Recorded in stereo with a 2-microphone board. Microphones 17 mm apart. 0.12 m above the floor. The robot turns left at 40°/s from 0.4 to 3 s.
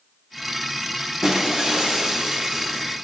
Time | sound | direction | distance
1.2 | breaking glass | 65° right | 6 m